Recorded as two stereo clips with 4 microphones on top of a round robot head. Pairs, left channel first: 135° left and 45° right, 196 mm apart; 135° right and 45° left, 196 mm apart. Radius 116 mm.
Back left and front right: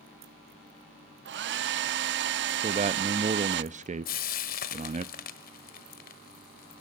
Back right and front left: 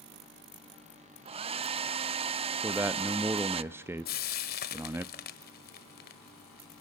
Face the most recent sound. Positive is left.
turn(degrees=180)